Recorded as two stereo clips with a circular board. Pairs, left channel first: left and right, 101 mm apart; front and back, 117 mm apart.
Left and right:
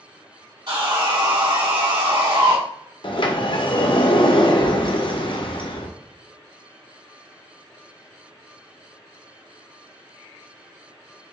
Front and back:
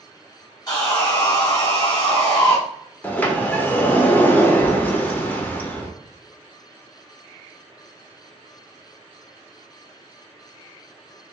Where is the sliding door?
75° left, 0.7 m.